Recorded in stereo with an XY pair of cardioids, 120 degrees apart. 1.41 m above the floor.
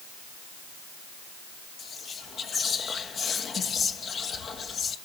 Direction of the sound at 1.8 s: 40° left.